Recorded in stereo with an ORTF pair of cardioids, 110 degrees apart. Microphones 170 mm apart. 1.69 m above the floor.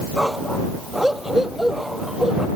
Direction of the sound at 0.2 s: Straight ahead.